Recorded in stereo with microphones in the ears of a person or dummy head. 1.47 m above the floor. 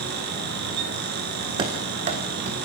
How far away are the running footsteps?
About 3.5 m.